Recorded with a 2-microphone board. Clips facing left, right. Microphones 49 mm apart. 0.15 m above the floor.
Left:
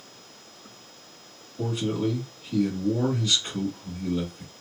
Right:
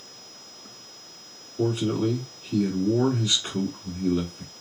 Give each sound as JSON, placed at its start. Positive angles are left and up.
{"t": 1.6, "sound": "a man speaking", "side_deg": -25, "distance_m": 1.1}